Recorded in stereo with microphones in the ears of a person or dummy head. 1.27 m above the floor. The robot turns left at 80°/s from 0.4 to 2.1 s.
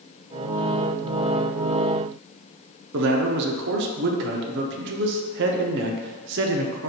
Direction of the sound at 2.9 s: 55° right (ahead or behind).